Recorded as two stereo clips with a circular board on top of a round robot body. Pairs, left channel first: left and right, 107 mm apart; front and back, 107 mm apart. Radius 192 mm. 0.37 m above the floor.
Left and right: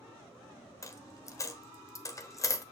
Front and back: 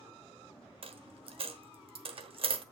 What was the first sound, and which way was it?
A dropped coin, 150° left.